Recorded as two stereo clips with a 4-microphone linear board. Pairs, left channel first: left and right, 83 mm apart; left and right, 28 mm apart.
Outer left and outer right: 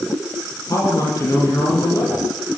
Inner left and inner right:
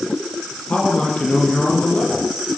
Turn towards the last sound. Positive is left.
turn(degrees=50)  # may be behind; listen again after turning